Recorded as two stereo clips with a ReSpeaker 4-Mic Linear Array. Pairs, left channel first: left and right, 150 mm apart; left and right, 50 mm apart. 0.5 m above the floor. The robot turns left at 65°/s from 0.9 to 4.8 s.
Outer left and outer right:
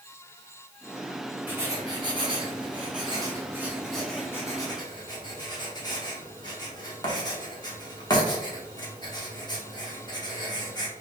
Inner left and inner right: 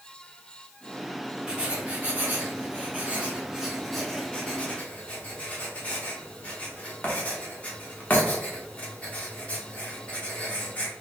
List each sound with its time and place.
1.5 s writing: 10° right (ahead or behind), 1.0 m; by 10.9 s 30° left (ahead or behind), 1.0 m